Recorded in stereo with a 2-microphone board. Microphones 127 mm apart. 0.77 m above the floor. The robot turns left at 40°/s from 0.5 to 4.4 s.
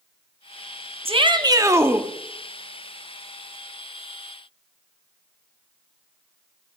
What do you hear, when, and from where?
1.1 s a shout: 130° right, 1.0 m; by 2.1 s 170° right, 1.0 m